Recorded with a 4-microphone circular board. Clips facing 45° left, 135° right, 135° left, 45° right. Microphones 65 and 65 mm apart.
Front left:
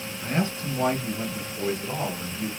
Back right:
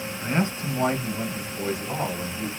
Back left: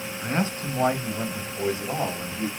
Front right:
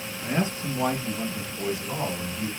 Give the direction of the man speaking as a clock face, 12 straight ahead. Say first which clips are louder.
Back right 1 dB, even; 6 o'clock.